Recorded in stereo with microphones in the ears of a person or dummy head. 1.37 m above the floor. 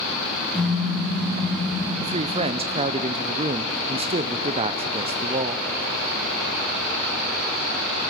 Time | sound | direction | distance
0.5 | a car horn | 10° left (ahead or behind) | 6.5 m
2.0 | a woman speaking | 25° right (ahead or behind) | 0.7 m